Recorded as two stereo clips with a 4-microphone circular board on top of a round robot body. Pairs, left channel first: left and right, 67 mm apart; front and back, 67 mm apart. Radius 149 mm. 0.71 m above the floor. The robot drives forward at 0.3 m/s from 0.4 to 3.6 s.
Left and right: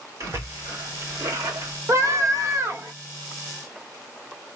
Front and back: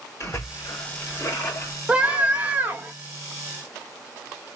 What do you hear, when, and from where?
0.2 s a splash: 45° right, 2 m; by 1.8 s 55° right, 1.8 m
1.9 s a scream: 110° right, 1.7 m; by 2.9 s 120° right, 1.8 m